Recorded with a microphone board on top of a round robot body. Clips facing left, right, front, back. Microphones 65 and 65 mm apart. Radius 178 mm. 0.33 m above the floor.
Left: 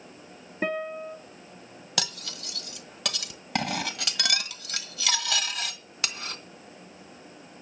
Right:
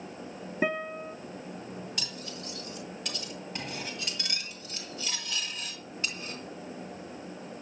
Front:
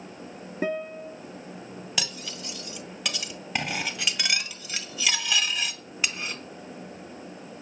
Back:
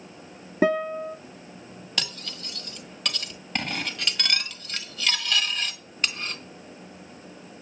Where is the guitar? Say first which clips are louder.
Left 1 dB, back 7 dB; 175° right, 0.8 m.